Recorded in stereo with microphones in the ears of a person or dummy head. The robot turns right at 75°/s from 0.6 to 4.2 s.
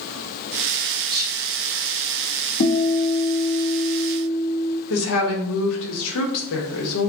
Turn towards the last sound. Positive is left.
turn(degrees=75)  # may be behind; listen again after turning